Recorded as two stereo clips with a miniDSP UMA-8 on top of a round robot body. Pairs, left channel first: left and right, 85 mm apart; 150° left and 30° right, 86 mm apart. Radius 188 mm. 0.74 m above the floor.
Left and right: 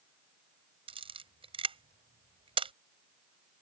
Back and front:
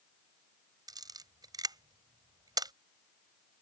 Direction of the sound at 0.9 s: 75° right.